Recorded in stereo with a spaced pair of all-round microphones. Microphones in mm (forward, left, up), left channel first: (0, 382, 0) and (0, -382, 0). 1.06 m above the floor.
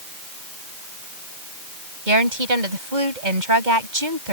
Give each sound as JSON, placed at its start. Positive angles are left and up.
{"t": 2.1, "sound": "a woman speaking", "side_deg": -75}